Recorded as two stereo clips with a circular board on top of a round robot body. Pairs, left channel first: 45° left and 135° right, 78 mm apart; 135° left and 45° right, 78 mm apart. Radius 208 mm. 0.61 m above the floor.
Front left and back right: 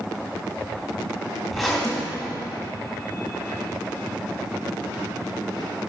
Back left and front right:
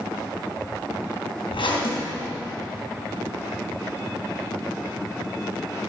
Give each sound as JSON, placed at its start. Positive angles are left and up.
{"t": 1.5, "sound": "a zipper", "azimuth_deg": 135, "distance_m": 3.5}